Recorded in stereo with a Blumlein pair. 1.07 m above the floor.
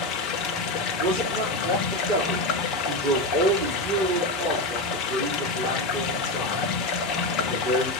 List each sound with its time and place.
0.0 s running water: 35° left, 1.6 m
1.0 s a man speaking: 35° right, 3.5 m